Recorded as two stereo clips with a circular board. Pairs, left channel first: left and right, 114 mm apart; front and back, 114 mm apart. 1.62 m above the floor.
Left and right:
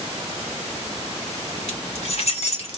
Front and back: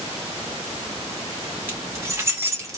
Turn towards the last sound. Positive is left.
turn(degrees=120)